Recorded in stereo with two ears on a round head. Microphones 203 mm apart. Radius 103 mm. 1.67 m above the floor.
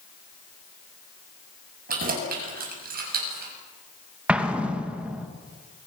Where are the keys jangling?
45° right (ahead or behind), 7.5 m.